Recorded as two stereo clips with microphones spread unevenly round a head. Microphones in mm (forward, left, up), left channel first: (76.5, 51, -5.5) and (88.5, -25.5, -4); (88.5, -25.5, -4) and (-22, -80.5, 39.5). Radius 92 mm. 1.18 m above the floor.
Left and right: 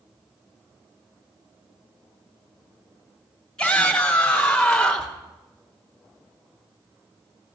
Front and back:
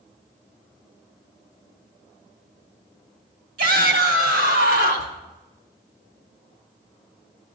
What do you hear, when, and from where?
3.6 s a shout: 175° right, 3 m; by 5.2 s 170° right, 1.8 m